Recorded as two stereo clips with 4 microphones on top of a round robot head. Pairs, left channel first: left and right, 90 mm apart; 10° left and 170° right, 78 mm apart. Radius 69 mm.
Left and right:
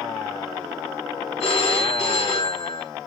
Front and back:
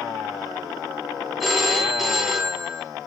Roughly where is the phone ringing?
Left.